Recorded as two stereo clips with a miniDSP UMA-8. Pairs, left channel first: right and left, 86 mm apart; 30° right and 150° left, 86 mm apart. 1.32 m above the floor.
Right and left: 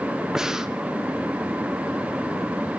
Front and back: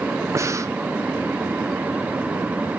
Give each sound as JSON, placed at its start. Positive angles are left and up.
{"t": 0.3, "sound": "breathing", "azimuth_deg": 170, "distance_m": 0.6}